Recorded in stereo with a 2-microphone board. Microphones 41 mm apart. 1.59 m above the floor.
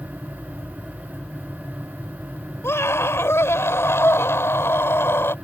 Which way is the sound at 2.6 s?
85° left.